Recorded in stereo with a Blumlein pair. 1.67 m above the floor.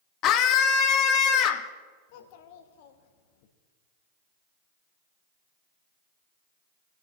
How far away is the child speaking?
About 1.3 m.